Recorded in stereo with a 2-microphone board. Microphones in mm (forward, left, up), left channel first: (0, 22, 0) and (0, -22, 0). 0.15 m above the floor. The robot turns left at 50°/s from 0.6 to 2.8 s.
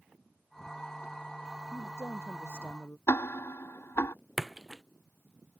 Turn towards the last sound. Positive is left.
turn(degrees=-5)  # may be behind; listen again after turning